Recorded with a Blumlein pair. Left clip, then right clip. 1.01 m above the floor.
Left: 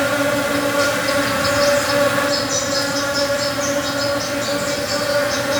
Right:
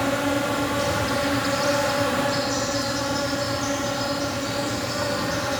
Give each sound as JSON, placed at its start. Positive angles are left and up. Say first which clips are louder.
{"t": 0.0, "sound": "an insect", "louder": "left 6 dB", "azimuth_deg": 35, "distance_m": 1.4}